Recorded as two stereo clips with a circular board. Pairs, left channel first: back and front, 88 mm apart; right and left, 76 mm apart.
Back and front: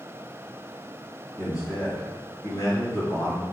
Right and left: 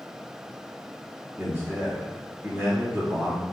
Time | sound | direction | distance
1.4 | a man speaking | 145° left | 1.9 m